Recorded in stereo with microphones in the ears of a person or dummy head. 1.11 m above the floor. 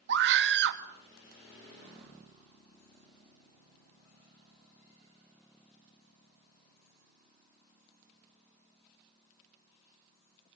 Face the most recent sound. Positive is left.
turn(degrees=-65)  # may be behind; listen again after turning